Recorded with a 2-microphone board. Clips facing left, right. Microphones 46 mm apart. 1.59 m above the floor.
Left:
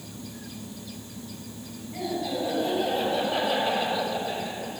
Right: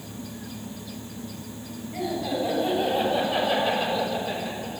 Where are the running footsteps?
I don't hear running footsteps.